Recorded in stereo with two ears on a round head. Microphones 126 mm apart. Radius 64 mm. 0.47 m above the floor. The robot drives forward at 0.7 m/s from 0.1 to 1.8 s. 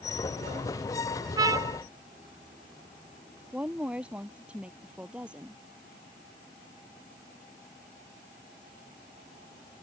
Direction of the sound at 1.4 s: 30° right (ahead or behind).